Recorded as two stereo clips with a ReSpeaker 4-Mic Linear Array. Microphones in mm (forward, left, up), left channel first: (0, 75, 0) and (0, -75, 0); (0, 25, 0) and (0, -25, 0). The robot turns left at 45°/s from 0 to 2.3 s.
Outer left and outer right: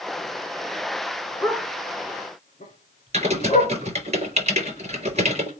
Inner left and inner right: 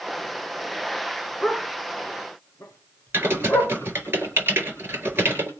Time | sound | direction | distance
1.4 | a dog barking | 5° left (ahead or behind) | 9 m
3.1 | typing on a keyboard | 45° right (ahead or behind) | 4.5 m